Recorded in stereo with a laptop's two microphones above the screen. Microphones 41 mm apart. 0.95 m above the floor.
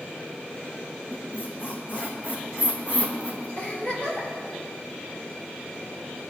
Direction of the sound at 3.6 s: 50° left (ahead or behind).